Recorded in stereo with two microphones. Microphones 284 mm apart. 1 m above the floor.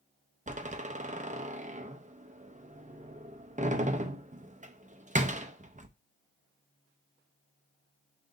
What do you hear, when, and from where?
0.5 s a door slam: 25° right (ahead or behind), 0.6 m